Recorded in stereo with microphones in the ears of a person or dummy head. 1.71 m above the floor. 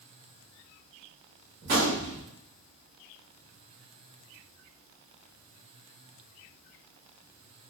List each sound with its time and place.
1.6 s a gunshot: 50° right (ahead or behind), 1.1 m